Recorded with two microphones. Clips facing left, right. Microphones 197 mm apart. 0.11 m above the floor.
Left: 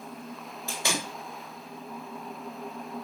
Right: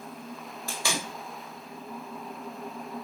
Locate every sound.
0.7 s tape being pulled: 20° left (ahead or behind), 1.4 m